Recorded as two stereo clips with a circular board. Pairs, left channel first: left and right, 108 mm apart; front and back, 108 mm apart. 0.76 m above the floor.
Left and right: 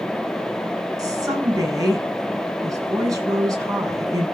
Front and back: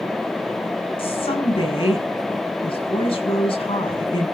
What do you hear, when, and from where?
1.0 s a woman speaking: 35° right, 7 m